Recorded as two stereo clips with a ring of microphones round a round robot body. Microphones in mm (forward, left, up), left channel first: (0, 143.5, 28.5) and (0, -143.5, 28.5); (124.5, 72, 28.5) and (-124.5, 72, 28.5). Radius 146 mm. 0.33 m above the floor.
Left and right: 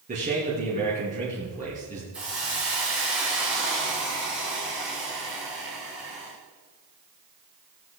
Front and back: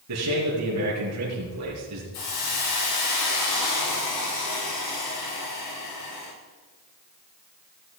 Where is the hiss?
5° right, 6 m.